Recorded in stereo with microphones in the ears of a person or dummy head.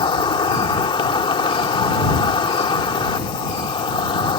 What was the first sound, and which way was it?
An insect, 25° left (ahead or behind).